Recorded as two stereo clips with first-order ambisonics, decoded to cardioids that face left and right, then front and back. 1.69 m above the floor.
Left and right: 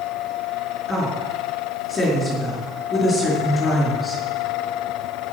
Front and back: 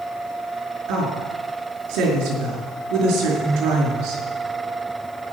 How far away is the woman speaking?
About 4.5 m.